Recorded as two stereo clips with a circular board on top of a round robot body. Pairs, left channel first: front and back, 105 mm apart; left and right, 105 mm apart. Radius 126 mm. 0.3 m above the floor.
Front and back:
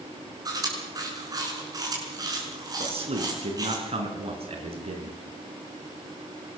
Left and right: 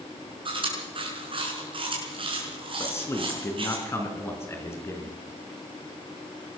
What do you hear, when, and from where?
0.5 s chewing: 125° right, 6.5 m
2.8 s a man speaking: 155° left, 4.5 m